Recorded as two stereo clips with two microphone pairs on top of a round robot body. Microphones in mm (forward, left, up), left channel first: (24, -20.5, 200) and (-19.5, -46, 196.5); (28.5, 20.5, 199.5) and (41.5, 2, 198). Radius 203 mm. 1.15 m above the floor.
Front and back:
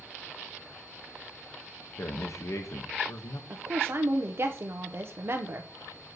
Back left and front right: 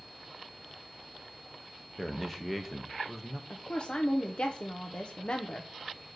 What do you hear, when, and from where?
2.0 s a man speaking: 45° left, 1.1 m
3.5 s a woman speaking: 175° left, 1.0 m